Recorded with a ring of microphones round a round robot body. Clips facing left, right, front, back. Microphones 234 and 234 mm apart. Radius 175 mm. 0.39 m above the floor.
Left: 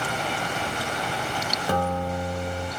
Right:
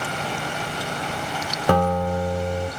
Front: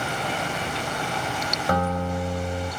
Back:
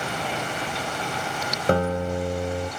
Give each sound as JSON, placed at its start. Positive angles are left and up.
{"t": 1.7, "sound": "a guitar", "azimuth_deg": -115, "distance_m": 0.9}